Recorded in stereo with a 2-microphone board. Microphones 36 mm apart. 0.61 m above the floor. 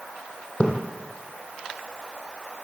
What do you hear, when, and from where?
0.6 s a splash: 30° left (ahead or behind), 4 m